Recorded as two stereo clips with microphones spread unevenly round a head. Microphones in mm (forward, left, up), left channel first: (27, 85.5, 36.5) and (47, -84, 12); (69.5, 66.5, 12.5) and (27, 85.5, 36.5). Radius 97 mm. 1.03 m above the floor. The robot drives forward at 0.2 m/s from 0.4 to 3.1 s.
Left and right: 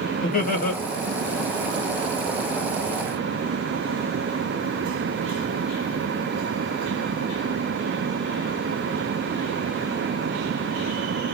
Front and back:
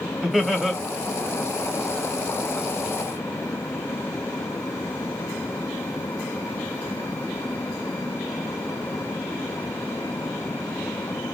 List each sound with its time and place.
0.2 s laughter: 60° left, 1.3 m; by 0.8 s 65° left, 1.3 m